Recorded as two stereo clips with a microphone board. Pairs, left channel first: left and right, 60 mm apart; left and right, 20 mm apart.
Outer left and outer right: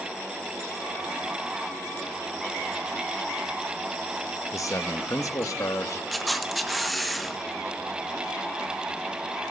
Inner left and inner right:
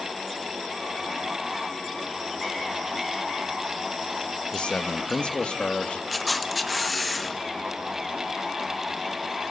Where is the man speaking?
60° left (ahead or behind), 1.2 m.